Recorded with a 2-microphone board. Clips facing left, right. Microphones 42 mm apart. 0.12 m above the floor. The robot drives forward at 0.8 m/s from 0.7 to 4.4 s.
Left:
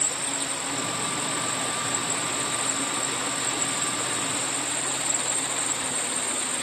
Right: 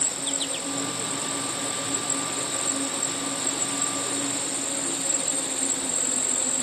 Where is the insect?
60° right (ahead or behind); by 6.6 s 65° right (ahead or behind).